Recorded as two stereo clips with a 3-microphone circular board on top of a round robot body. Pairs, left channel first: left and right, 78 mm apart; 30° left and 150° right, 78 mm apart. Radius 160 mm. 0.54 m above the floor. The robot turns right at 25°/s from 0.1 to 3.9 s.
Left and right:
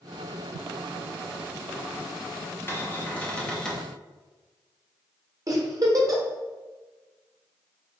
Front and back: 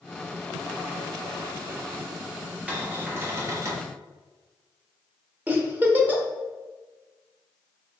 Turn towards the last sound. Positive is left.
turn(degrees=-85)